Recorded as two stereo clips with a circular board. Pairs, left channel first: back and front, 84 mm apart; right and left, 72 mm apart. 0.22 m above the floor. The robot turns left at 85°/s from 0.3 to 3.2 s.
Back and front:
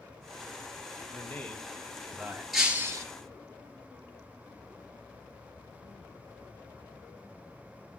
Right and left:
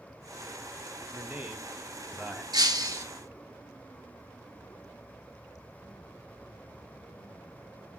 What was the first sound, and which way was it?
A man speaking, 150° left.